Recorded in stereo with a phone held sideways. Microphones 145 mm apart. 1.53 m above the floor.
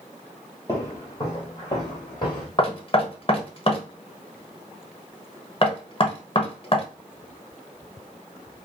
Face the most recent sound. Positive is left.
turn(degrees=40)  # may be behind; listen again after turning